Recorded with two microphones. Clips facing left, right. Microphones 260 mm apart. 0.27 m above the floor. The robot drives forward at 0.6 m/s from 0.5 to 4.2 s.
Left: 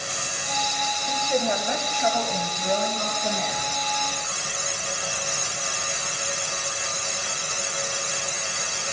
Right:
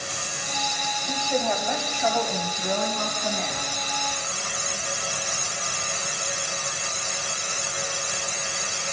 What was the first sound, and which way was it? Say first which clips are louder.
A woman speaking: left 1 dB; 20° left (ahead or behind).